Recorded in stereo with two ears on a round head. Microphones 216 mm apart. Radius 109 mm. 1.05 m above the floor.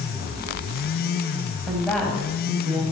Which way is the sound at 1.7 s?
5° left (ahead or behind).